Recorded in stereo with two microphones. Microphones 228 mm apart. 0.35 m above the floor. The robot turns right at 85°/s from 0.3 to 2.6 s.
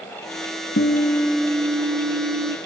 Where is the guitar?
125° left, 0.8 m; by 2.6 s 80° right, 0.8 m.